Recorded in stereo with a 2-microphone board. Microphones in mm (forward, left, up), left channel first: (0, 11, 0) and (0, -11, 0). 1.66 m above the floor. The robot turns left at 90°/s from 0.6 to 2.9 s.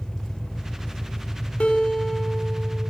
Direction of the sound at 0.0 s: 140° left.